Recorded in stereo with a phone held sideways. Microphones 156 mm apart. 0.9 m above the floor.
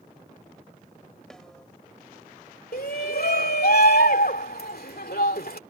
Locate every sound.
1.3 s a snare drum: 5° left (ahead or behind)
2.7 s a shout: 80° left